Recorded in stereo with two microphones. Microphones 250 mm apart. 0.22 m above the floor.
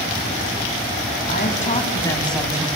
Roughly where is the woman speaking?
Left.